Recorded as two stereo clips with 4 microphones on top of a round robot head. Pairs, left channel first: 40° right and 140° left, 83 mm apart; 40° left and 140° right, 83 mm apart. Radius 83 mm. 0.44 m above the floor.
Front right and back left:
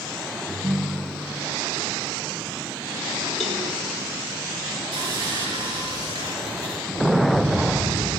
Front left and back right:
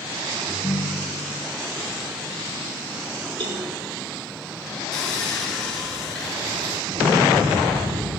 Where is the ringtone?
80° left, 4 m.